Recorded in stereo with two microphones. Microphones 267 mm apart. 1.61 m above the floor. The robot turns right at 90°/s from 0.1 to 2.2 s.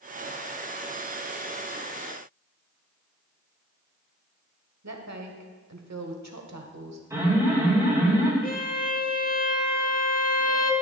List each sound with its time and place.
4.8 s a woman speaking: 80° right, 1.0 m
7.1 s an alarm: 10° right (ahead or behind), 3.5 m
8.4 s a violin: 35° left (ahead or behind), 0.8 m